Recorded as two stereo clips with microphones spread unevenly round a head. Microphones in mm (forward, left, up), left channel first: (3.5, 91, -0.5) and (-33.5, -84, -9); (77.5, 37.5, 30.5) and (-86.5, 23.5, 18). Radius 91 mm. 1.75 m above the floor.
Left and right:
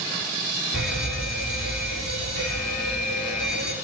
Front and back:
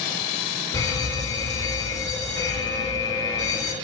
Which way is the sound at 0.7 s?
75° left.